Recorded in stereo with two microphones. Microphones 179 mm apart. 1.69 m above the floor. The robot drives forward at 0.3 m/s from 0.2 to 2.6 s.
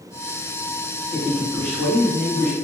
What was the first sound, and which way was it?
A man speaking, 10° left (ahead or behind).